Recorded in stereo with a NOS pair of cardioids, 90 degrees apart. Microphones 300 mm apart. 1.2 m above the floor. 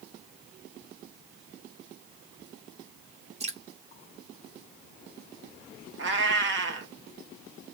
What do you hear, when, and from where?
3.4 s dripping: 20° right, 1.5 m
6.0 s a cat meowing: 40° right, 1.1 m